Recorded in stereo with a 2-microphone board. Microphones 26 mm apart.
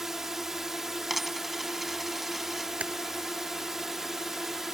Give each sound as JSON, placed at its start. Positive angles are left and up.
{"t": 0.0, "sound": "a drone", "side_deg": -15}
{"t": 1.1, "sound": "a dropped coin", "side_deg": -5}
{"t": 2.8, "sound": "typing on a keyboard", "side_deg": -75}